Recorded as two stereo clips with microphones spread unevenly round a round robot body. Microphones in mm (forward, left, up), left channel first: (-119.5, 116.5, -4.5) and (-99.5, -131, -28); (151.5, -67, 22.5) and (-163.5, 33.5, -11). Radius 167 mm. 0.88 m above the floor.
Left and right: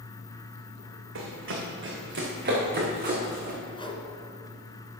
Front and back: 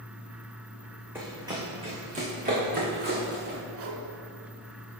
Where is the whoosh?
160° left, 1.8 m.